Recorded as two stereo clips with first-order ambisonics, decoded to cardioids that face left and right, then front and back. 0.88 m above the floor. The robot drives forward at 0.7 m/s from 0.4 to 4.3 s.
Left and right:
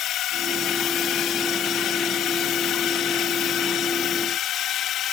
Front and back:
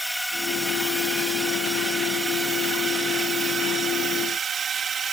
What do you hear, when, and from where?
0.0 s a drone: 85° left; by 5.1 s 120° left